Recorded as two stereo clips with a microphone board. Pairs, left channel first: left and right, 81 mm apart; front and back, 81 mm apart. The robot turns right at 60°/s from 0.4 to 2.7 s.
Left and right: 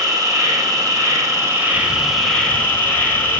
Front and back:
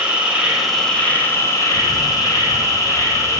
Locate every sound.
0.0 s an insect: 105° right, 0.8 m; by 3.4 s 30° left, 0.8 m
1.7 s a camera shutter: 120° right, 2.5 m; by 3.4 s 60° right, 2.5 m